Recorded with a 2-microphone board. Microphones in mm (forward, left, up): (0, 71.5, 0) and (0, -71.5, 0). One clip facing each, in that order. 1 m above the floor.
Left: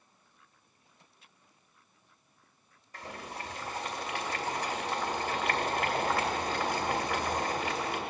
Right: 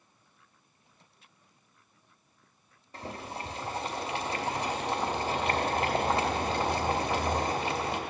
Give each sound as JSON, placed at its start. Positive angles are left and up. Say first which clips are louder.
{"t": 2.9, "sound": "boiling", "louder": "right 3 dB", "side_deg": -25, "distance_m": 1.0}